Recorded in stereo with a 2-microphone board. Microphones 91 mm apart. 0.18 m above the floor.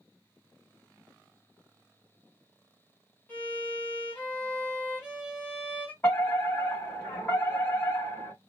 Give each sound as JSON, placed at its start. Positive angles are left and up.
{"t": 3.3, "sound": "a violin", "side_deg": 15, "distance_m": 1.7}
{"t": 6.0, "sound": "a fire alarm", "side_deg": 20, "distance_m": 2.5}